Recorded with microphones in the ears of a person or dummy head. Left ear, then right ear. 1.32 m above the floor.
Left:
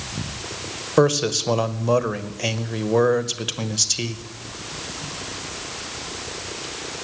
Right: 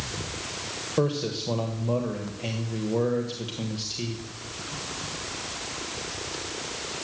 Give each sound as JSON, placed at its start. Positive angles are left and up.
{"t": 1.0, "sound": "a man speaking", "side_deg": 55, "distance_m": 0.9}